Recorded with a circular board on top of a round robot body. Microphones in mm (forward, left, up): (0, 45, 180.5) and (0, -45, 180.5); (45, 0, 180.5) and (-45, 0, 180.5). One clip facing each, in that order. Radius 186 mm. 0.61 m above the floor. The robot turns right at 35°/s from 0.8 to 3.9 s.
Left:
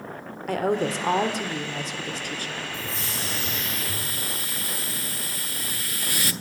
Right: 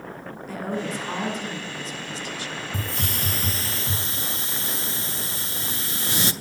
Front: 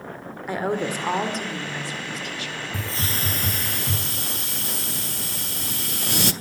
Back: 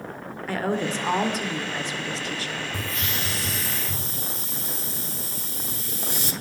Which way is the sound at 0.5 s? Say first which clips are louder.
Left 6 dB, front 1 dB; 70° left.